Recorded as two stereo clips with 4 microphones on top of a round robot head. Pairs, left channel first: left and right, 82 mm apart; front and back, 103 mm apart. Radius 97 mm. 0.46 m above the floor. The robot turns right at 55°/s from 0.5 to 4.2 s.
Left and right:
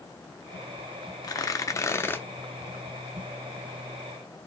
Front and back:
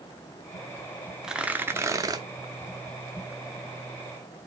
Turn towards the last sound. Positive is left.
turn(degrees=-100)